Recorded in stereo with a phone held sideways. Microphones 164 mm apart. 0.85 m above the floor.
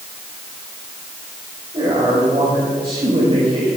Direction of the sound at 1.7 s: 35° right (ahead or behind).